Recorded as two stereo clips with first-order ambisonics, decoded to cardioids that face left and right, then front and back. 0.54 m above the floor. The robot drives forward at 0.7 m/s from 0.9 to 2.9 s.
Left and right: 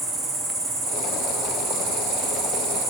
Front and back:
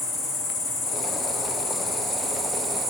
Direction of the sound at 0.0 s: 40° right.